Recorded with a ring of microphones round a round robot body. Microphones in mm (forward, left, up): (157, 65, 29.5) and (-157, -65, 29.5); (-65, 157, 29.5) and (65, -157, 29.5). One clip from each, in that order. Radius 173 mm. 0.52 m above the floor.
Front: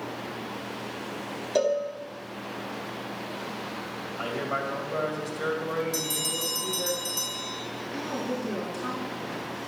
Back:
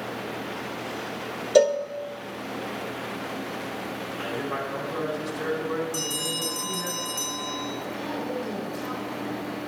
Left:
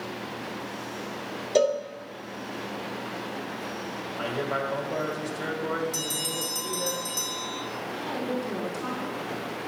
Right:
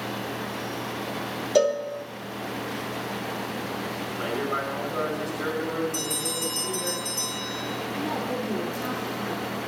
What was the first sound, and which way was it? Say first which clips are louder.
A cowbell: back 6 dB, right 1 dB; 165° right.